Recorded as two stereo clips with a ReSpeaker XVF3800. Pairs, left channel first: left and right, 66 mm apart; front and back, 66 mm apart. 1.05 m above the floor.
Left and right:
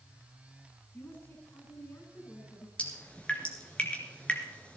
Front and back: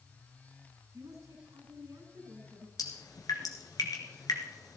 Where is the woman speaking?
145° left, 9.5 m.